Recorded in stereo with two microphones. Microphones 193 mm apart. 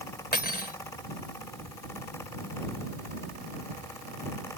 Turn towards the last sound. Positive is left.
turn(degrees=50)  # may be behind; listen again after turning